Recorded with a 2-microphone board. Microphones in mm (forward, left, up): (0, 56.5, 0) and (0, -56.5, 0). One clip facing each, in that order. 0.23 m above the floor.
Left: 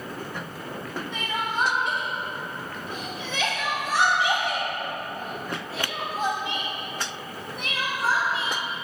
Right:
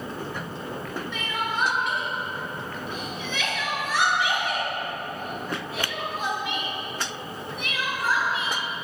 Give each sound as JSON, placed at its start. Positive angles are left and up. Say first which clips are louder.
{"t": 1.1, "sound": "crying", "louder": "left 2 dB", "side_deg": 35, "distance_m": 0.6}